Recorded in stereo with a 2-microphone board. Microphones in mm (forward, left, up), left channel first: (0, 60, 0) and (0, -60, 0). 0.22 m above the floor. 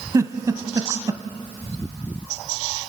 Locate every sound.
0.1 s a giggle: 25° right (ahead or behind), 0.9 m